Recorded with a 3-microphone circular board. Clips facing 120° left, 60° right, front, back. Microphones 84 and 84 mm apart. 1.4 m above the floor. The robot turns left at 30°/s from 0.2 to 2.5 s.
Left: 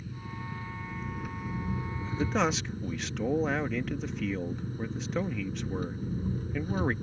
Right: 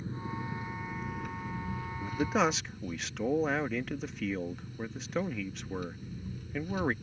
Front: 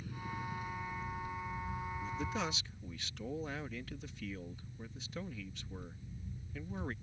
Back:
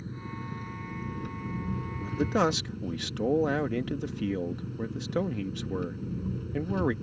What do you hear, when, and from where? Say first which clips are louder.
0.0 s an engine running: right 3 dB, back 3 dB; 120° right; by 7.0 s 170° left
2.0 s a man speaking: even, back 14 dB; 135° right; by 6.9 s 150° right